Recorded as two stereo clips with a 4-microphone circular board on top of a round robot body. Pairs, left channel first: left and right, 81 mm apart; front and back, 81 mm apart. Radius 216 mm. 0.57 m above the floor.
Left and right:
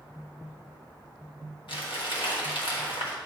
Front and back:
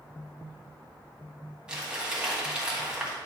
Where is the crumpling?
100° left, 1.9 m.